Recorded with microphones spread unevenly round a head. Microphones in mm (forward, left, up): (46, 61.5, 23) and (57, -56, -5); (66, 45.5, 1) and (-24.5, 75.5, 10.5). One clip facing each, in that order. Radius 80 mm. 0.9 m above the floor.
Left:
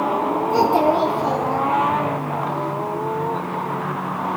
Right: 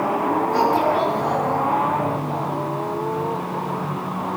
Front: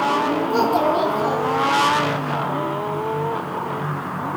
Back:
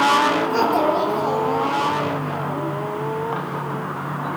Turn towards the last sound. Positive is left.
turn(degrees=80)